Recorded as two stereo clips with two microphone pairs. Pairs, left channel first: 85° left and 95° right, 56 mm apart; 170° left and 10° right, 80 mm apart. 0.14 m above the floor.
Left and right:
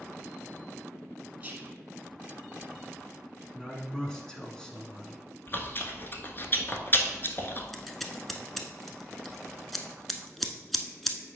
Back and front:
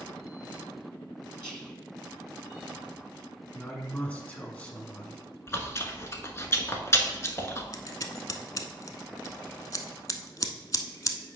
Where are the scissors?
170° left, 0.7 m.